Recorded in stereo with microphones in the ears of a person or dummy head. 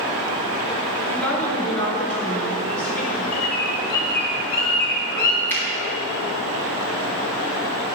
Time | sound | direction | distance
1.1 | a woman speaking | 10° left (ahead or behind) | 2 m
3.3 | a bird | 55° left (ahead or behind) | 1.9 m
5.5 | a finger snap | 15° left (ahead or behind) | 3 m